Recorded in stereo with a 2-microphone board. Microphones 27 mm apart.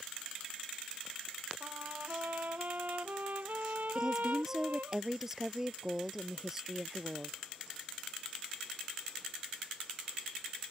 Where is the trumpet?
85° right.